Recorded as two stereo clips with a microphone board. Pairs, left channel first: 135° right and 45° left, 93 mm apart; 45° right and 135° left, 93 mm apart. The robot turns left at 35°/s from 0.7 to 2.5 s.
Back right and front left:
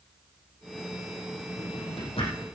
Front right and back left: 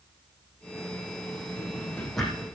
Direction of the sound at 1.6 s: 110° right.